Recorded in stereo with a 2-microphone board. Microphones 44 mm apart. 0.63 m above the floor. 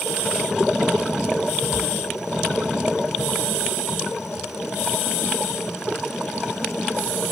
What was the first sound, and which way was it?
A cupboard door, centre (ahead or behind).